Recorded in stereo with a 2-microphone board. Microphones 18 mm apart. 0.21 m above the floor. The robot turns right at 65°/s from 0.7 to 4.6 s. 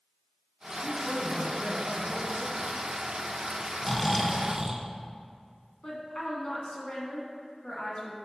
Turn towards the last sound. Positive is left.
turn(degrees=40)  # may be behind; listen again after turning